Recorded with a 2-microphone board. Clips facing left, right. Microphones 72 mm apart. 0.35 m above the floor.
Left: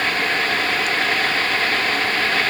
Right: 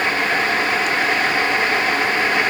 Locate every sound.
Only background noise.